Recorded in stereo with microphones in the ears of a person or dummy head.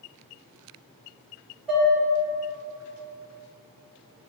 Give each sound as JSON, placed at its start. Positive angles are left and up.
{"t": 1.7, "sound": "dishes clattering", "side_deg": 0, "distance_m": 1.3}